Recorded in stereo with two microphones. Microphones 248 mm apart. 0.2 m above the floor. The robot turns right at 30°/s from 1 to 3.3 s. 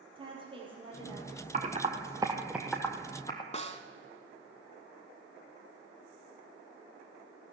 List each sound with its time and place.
0.1 s a woman speaking: 20° right, 6 m; by 2.5 s 25° left, 6 m
1.5 s typing on a keyboard: 35° right (ahead or behind), 1.6 m; by 3.4 s 20° left (ahead or behind), 1.6 m
3.5 s a snare drum: 25° left (ahead or behind), 1.0 m